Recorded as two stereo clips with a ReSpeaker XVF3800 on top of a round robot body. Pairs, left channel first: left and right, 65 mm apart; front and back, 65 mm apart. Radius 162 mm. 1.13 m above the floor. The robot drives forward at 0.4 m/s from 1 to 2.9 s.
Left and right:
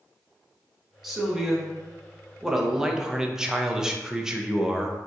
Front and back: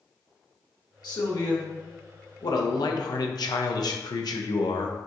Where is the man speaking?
5° right, 1.4 m; by 5.0 s 10° right, 0.7 m.